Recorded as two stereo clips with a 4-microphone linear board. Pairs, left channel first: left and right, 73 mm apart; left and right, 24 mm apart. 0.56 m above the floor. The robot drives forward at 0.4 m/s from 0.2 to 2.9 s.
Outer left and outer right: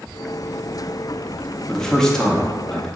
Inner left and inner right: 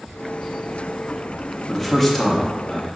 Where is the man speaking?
10° left (ahead or behind), 0.6 m.